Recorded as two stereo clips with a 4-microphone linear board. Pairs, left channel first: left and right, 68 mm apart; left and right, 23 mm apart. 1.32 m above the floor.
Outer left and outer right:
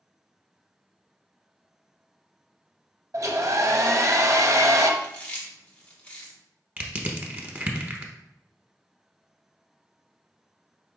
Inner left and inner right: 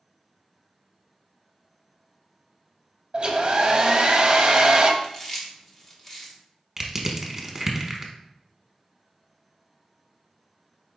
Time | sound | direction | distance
3.1 | a hair dryer | 45° right (ahead or behind) | 0.6 m
5.0 | chewing | 20° left (ahead or behind) | 1.0 m
6.8 | crushing | 25° right (ahead or behind) | 0.8 m